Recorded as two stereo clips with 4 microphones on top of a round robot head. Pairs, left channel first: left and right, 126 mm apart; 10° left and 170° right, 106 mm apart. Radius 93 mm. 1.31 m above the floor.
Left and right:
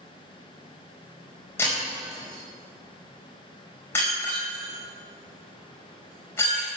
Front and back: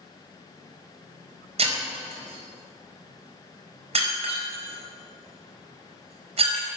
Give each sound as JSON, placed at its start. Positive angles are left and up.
{"t": 1.6, "sound": "breaking glass", "azimuth_deg": 165, "distance_m": 4.5}